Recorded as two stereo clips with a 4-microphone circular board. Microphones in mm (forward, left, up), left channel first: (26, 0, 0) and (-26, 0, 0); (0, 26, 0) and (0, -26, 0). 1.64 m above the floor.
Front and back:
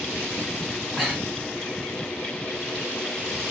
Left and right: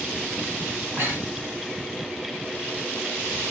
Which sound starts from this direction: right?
Breathing, at 1.0 s.